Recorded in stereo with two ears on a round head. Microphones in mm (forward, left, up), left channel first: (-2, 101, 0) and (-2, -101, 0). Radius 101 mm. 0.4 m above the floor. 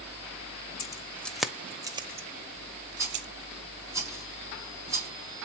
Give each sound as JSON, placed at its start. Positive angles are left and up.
{"t": 0.8, "sound": "keys jangling", "side_deg": 15, "distance_m": 1.0}
{"t": 3.0, "sound": "a rattle", "side_deg": -15, "distance_m": 3.5}